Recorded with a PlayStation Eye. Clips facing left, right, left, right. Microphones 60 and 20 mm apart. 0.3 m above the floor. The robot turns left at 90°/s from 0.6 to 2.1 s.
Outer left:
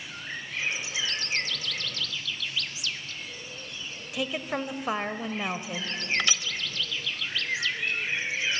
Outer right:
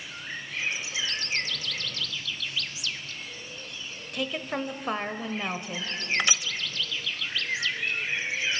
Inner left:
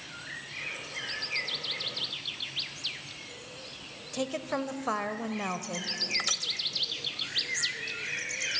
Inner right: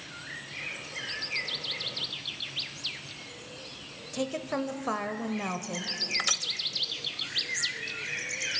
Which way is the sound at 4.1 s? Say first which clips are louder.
Even, even; 5° left (ahead or behind).